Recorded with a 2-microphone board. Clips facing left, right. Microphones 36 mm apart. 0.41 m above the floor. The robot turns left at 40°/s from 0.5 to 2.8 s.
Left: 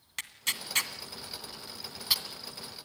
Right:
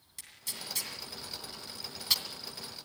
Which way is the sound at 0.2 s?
70° left (ahead or behind).